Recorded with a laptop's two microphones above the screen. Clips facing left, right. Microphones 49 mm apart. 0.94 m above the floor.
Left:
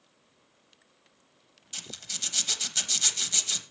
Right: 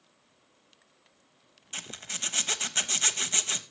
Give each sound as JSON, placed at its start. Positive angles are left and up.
{"t": 1.7, "sound": "a zipper", "side_deg": -30, "distance_m": 0.8}